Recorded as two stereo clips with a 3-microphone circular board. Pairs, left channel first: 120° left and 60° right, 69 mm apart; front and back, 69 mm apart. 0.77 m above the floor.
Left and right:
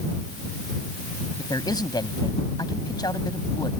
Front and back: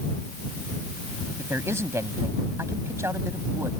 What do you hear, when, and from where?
1.4 s a man speaking: 130° left